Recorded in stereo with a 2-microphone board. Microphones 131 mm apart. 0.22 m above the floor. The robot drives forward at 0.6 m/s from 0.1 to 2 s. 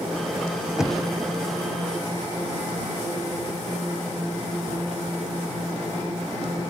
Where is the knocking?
5° right (ahead or behind), 0.6 m.